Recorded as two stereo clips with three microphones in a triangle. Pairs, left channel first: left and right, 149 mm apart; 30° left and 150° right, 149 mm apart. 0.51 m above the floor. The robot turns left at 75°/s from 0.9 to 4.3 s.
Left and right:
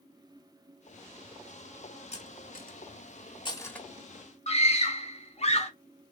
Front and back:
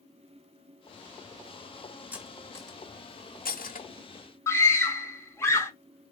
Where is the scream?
95° left, 1.0 m.